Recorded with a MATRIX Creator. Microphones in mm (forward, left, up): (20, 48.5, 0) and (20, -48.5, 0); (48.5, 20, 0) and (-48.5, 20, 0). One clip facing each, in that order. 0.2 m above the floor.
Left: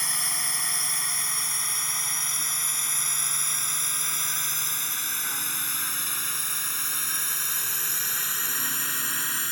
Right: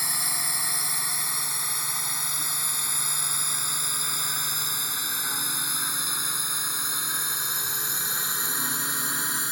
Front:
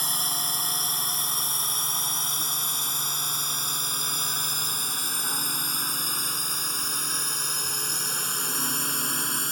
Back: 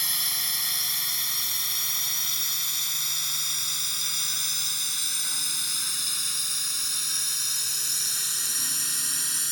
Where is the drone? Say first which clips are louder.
Right 1 dB, front 6 dB; 10° right; by 9.5 s 20° right.